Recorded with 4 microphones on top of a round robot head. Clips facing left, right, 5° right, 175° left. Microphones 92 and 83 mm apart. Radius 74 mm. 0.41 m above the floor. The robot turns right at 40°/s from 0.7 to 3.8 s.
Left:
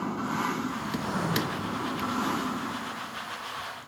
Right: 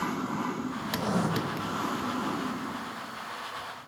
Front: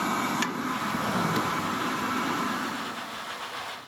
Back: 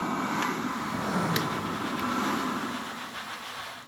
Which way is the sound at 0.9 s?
85° right.